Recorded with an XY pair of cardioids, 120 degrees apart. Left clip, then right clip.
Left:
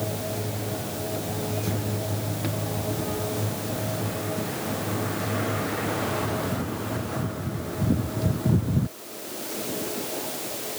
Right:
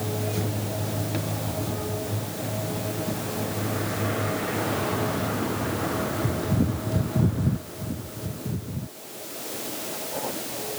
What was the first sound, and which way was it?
Only background noise.